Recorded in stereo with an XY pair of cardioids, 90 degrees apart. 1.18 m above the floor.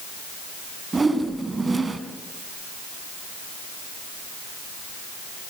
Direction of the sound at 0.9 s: 25° right.